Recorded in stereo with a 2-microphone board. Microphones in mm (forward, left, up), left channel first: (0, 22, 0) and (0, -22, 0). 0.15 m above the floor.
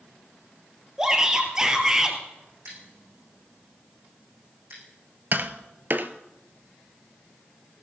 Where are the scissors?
60° right (ahead or behind), 8 m.